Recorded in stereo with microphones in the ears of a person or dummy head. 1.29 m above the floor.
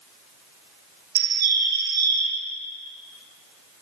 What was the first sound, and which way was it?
A bird, 55° right (ahead or behind).